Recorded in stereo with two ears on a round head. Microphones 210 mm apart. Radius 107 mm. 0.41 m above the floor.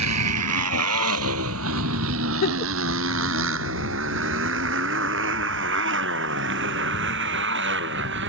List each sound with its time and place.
0.0 s a motorcycle: 85° right; by 8.3 s 55° right (ahead or behind)
2.4 s a giggle: 40° left (ahead or behind)